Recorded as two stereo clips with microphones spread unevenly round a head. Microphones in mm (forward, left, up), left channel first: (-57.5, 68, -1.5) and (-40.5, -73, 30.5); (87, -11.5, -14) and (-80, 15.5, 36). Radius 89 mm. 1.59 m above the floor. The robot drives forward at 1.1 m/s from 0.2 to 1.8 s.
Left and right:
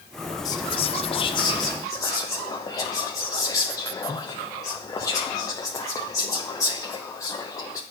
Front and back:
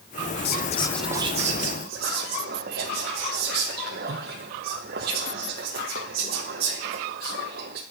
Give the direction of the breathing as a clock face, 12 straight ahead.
I don't hear breathing.